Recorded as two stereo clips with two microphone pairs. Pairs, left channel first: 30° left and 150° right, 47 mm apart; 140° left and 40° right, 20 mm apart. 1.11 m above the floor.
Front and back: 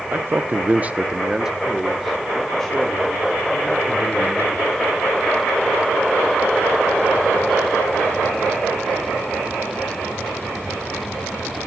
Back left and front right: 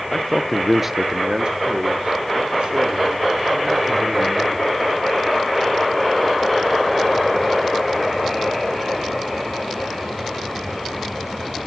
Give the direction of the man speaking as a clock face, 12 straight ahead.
6 o'clock.